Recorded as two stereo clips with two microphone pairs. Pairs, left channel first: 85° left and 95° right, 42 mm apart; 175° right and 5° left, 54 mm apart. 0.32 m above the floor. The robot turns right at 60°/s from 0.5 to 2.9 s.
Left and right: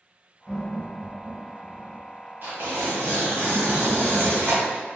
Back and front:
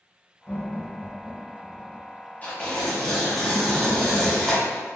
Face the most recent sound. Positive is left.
turn(degrees=-90)